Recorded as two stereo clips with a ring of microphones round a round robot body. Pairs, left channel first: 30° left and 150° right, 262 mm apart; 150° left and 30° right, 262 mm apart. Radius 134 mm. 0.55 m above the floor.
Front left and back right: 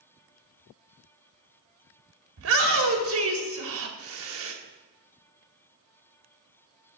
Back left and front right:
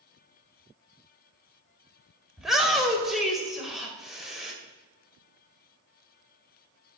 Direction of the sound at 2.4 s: 120° right.